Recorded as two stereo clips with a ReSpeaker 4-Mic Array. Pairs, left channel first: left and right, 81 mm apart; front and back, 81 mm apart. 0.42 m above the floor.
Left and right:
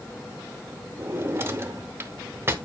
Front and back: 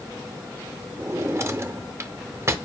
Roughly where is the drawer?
Behind right.